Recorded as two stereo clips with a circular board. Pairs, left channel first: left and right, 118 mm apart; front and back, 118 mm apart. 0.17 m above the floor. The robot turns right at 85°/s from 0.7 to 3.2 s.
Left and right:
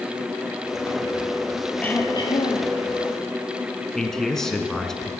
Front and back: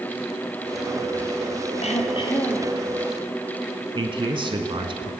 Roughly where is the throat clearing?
Ahead.